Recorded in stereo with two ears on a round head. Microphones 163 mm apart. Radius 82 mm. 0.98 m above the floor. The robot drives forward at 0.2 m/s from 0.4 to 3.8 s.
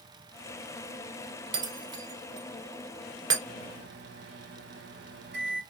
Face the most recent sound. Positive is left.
turn(degrees=-65)  # may be behind; listen again after turning